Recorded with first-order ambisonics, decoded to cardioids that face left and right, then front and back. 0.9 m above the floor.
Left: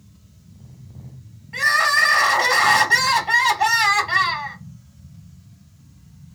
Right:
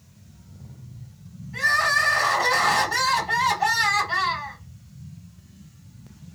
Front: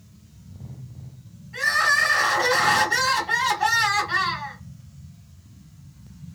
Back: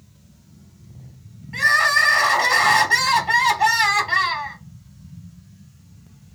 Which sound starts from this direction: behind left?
Crying, at 1.5 s.